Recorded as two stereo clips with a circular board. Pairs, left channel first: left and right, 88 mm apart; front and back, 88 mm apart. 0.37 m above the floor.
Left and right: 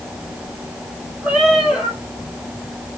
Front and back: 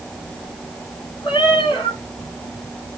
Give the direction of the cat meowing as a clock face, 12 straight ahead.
12 o'clock.